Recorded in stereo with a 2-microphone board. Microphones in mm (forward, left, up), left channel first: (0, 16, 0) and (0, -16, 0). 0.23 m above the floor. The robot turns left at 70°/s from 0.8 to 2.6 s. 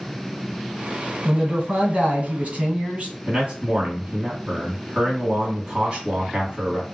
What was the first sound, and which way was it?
A man speaking, 20° right.